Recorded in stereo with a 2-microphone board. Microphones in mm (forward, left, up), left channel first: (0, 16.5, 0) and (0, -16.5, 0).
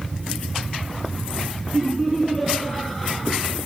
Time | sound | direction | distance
1.7 | laughter | 10° left (ahead or behind) | 5 m